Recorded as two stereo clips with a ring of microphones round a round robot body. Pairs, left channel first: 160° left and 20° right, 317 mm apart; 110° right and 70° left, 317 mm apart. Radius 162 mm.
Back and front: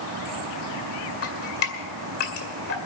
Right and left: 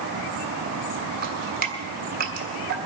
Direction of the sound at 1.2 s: 125° left.